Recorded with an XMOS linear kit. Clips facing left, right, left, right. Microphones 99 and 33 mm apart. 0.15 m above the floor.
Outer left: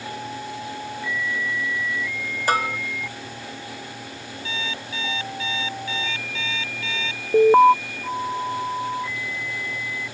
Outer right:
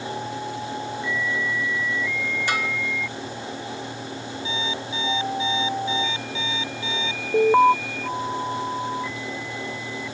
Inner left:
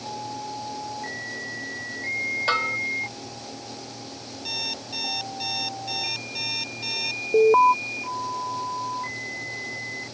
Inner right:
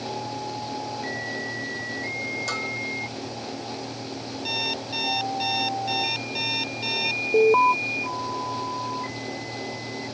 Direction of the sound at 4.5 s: 20° right (ahead or behind).